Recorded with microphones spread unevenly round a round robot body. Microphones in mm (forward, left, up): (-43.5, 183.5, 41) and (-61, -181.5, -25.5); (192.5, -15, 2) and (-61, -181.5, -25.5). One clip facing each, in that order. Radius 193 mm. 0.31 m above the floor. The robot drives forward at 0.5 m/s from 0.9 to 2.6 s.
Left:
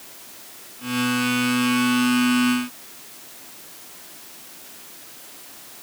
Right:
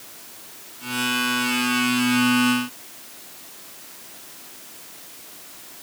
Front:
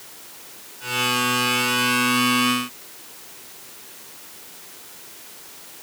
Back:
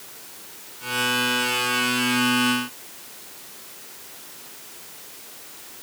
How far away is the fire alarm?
I don't hear a fire alarm.